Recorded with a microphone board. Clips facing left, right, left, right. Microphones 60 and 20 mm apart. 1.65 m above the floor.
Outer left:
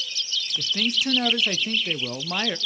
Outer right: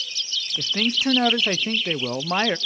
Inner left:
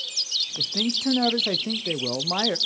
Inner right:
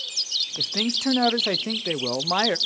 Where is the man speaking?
30° right (ahead or behind), 0.6 m.